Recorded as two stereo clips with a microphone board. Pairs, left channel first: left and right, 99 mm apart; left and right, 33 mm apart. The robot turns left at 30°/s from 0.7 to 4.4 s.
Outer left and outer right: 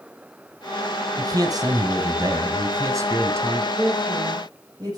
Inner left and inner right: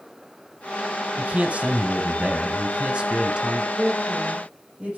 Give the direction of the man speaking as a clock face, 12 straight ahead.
2 o'clock.